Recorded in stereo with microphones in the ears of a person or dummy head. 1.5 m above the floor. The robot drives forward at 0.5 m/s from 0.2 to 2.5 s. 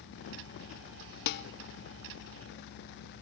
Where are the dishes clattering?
60° left (ahead or behind), 1.2 m; by 1.4 s 65° left (ahead or behind), 1.1 m.